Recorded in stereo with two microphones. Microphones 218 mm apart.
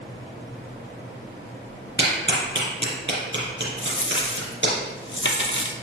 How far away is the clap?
About 3 m.